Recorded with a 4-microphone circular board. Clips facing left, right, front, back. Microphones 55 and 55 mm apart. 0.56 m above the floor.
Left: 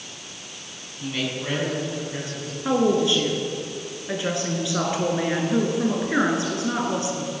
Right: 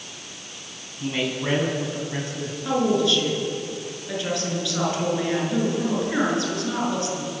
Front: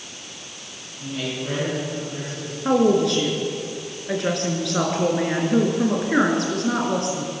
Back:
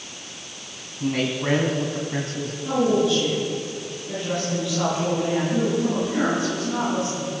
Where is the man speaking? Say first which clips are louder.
Right 2 dB, back 5 dB; 165° right, 5 m; by 2.5 s 150° right, 4.5 m.